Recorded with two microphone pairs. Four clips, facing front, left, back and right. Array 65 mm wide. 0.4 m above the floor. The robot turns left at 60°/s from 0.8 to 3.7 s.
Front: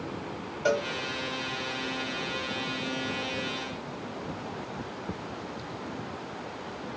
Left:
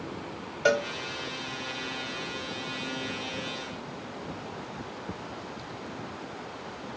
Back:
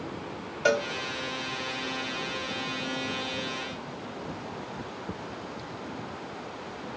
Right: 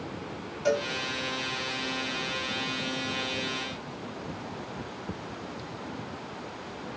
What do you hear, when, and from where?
0.7 s a cowbell: 145° left, 0.7 m; by 0.9 s 140° left, 0.7 m